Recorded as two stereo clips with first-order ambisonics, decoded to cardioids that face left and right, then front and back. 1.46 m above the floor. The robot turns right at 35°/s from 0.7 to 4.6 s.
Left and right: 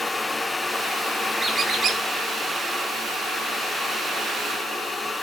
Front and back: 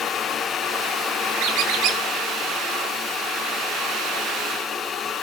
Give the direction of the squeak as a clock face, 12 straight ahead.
6 o'clock.